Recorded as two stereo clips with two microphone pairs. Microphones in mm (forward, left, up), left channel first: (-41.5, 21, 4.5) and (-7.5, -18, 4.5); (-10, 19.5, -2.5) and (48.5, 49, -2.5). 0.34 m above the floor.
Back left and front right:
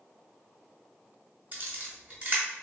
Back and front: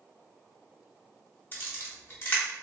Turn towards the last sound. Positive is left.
turn(degrees=-100)